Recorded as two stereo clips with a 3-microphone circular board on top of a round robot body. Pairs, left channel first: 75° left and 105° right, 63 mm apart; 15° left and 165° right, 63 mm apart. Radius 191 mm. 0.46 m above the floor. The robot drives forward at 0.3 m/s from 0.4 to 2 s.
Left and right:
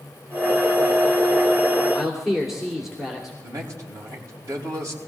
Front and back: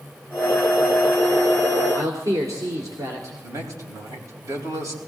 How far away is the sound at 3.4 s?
About 4.5 m.